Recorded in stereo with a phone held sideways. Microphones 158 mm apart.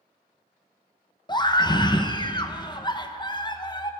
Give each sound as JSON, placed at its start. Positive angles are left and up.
{"t": 1.3, "sound": "a scream", "side_deg": 30, "distance_m": 0.8}